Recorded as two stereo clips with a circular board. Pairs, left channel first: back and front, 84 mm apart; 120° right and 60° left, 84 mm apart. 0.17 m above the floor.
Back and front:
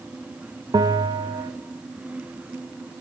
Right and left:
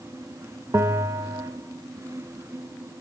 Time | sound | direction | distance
0.7 | a bell | 10° left | 0.5 m